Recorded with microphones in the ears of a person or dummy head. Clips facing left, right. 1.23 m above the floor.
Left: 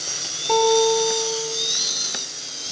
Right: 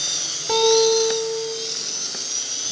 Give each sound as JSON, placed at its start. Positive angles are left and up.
{"t": 0.5, "sound": "a guitar", "side_deg": -15, "distance_m": 2.5}